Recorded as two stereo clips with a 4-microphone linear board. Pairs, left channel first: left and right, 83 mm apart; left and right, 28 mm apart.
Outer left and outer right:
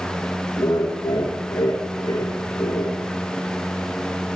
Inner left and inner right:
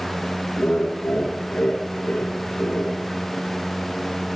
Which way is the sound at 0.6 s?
70° left (ahead or behind).